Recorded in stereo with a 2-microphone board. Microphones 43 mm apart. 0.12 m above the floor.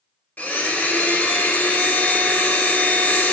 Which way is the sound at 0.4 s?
35° left (ahead or behind).